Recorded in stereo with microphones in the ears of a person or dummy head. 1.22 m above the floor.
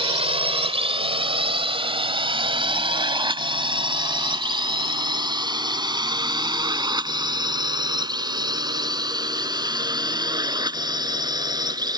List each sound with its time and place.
0.0 s a drone: 30° right (ahead or behind); by 12.0 s 20° right (ahead or behind)